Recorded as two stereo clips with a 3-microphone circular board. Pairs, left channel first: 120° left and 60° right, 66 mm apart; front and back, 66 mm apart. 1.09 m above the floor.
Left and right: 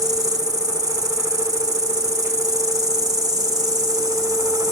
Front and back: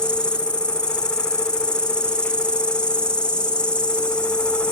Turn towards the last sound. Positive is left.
turn(degrees=-75)